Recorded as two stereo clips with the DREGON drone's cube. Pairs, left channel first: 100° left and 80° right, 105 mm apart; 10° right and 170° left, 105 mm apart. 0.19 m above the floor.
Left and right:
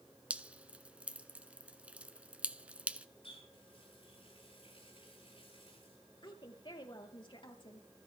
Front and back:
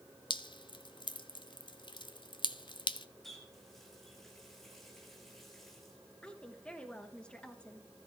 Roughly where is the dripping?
Ahead.